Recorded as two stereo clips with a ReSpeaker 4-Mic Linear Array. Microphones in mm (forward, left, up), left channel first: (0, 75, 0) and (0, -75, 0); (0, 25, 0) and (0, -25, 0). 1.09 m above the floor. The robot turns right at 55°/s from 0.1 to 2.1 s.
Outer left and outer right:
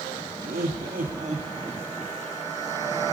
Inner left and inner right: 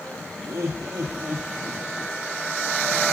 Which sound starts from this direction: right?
Laughter, at 0.4 s.